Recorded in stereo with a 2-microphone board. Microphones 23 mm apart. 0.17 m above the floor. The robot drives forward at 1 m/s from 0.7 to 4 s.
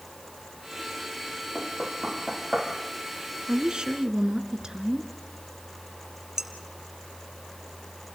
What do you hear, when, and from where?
1.6 s knocking: 15° right (ahead or behind), 3.5 m; by 2.7 s 10° right (ahead or behind), 4.5 m
3.5 s a woman speaking: 40° right (ahead or behind), 1.6 m; by 5.1 s 35° right (ahead or behind), 1.9 m
6.4 s dishes clattering: 25° right (ahead or behind), 2 m